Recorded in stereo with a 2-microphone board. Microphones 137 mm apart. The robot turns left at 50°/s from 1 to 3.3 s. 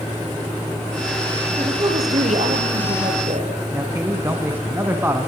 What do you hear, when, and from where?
1.6 s a woman speaking: 30° right, 5.5 m; by 3.5 s 115° right, 5.5 m
3.7 s a man speaking: 15° right (ahead or behind), 1.7 m